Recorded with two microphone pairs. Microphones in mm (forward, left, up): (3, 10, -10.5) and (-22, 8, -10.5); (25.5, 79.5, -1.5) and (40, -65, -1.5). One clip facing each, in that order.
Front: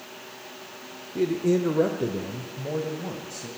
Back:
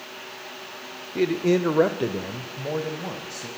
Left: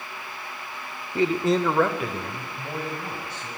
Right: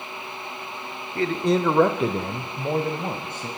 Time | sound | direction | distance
1.1 | a man speaking | 155° left | 1.0 m